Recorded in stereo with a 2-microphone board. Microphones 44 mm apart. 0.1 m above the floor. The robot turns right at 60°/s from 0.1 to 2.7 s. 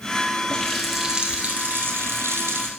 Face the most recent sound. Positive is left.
turn(degrees=-70)